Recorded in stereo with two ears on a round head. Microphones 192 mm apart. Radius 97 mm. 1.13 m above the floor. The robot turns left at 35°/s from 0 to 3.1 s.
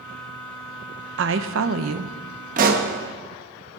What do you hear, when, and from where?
1.2 s a woman speaking: 60° right, 0.9 m; by 2.5 s 105° right, 0.9 m
2.6 s a pop: 40° right (ahead or behind), 1.2 m; by 2.9 s 50° right (ahead or behind), 1.2 m